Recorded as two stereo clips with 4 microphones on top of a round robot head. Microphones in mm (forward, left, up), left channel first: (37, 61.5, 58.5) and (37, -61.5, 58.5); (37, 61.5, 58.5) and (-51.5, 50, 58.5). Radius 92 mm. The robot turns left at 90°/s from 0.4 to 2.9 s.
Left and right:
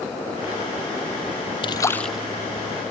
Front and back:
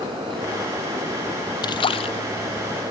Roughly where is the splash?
Ahead left.